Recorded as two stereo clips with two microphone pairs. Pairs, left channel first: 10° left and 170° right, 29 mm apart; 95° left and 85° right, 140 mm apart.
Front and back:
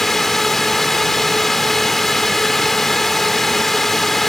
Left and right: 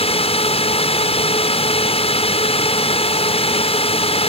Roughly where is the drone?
Left.